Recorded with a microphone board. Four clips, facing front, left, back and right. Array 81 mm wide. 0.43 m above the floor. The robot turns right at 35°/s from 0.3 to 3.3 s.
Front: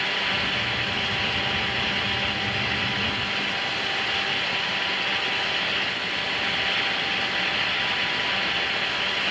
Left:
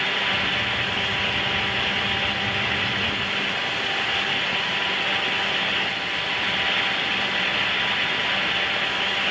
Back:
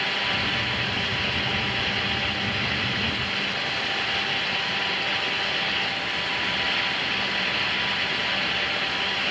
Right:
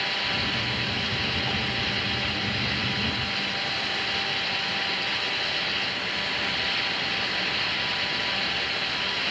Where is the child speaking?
No child speaking in this recording.